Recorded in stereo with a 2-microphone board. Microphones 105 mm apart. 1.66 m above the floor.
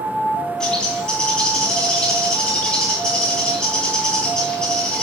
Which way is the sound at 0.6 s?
10° left (ahead or behind).